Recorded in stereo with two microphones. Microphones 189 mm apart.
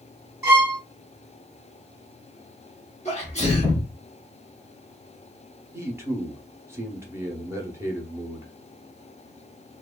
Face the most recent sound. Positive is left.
turn(degrees=-15)  # may be behind; listen again after turning